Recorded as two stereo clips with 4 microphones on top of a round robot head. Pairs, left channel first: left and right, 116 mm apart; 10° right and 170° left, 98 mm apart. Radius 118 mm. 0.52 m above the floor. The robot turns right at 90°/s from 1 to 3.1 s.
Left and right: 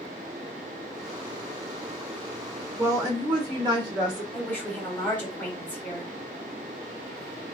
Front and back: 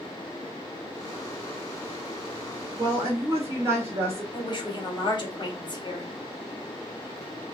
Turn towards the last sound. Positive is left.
turn(degrees=15)